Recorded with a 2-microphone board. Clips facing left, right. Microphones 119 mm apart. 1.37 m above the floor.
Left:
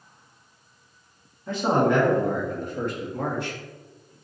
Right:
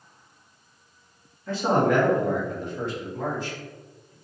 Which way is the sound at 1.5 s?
15° left (ahead or behind).